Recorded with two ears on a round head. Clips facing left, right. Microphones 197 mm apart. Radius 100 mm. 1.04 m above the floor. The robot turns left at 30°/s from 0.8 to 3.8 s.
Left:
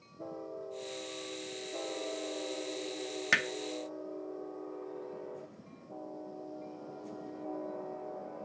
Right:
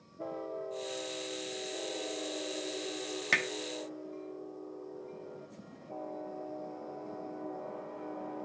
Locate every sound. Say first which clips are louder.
3.3 s hammering: right 3 dB; 10° left (ahead or behind), 0.6 m; by 3.5 s 5° left (ahead or behind), 0.6 m